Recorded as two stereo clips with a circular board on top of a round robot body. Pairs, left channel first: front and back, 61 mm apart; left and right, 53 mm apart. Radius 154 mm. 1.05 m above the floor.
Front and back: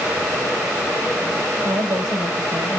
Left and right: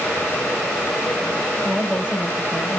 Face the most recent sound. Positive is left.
turn(degrees=-165)